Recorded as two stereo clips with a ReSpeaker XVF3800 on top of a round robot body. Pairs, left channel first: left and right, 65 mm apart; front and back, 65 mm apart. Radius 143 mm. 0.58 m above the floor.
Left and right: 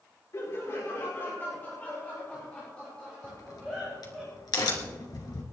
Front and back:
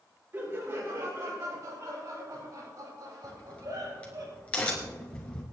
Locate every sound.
0.3 s laughter: 130° left, 3 m; by 4.2 s 175° left, 4.5 m
3.2 s a crack: 75° left, 2 m